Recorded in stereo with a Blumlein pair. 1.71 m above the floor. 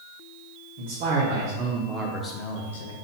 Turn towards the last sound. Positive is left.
turn(degrees=65)